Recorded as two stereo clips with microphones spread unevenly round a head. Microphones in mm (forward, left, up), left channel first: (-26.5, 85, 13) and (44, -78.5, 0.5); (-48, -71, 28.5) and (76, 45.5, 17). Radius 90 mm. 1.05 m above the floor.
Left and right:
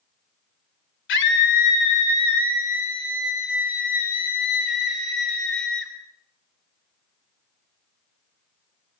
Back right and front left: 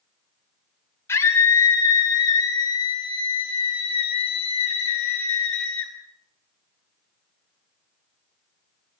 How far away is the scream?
About 3.5 m.